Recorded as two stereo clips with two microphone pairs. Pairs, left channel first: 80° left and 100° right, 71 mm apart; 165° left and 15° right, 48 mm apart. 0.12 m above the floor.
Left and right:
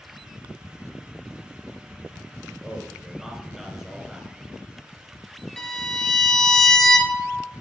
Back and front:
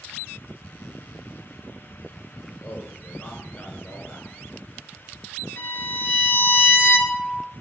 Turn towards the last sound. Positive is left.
turn(degrees=165)